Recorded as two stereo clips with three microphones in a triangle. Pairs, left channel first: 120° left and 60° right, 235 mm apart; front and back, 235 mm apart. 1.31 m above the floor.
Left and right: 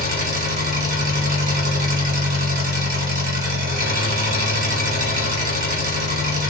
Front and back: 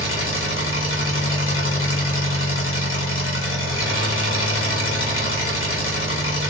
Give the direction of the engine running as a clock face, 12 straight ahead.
12 o'clock.